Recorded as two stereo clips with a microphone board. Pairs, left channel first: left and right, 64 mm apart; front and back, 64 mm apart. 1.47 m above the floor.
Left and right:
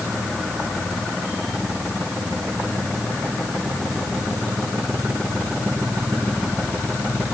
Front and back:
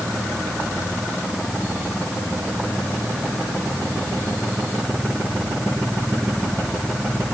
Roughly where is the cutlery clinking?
No cutlery clinking in this recording.